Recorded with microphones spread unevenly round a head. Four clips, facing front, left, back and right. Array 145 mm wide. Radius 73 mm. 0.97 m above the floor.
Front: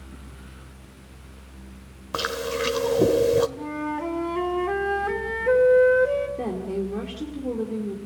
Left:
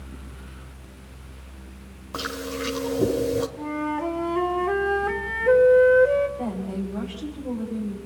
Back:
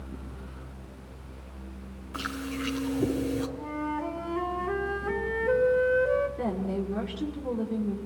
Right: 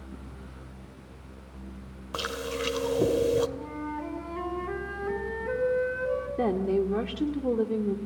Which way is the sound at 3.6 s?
50° left.